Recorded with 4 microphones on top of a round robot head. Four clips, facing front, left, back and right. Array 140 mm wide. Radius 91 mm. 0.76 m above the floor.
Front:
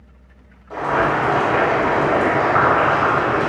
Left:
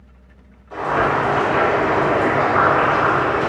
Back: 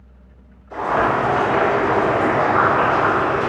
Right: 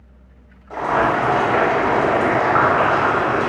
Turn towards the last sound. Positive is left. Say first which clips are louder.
# right 1 dB, even
turn(degrees=-55)